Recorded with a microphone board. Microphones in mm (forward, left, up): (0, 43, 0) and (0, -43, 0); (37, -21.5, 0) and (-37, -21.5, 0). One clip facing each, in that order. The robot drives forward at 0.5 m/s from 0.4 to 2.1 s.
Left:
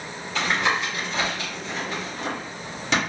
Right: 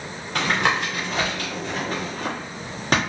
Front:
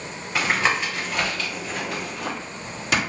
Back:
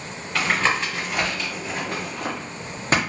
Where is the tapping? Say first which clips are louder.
Right 2 dB, even; 70° right, 0.9 m; by 3.0 s 130° right, 1.0 m.